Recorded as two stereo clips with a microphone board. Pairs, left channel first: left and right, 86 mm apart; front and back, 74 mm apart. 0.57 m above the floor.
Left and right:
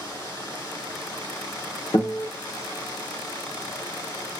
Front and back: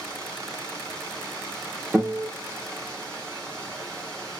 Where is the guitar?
105° left, 0.8 m.